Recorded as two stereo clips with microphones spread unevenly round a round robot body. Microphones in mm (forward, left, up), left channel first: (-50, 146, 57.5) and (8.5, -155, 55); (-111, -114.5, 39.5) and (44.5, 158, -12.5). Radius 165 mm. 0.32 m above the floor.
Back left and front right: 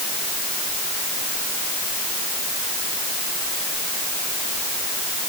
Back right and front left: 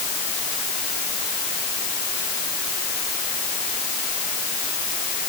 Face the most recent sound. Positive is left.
No sound to turn to.